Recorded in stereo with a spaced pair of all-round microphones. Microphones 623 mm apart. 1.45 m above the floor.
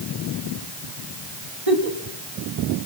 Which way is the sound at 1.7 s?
60° right (ahead or behind).